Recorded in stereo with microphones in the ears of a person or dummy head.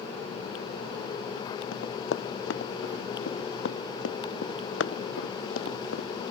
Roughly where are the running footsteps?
Left.